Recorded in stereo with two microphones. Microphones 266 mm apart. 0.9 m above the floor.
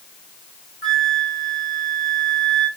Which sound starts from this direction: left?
A flute, at 0.8 s.